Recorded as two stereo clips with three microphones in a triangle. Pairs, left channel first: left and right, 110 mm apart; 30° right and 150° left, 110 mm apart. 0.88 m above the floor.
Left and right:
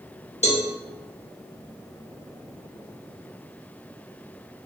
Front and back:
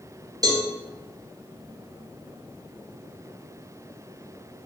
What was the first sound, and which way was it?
A cowbell, 95° left.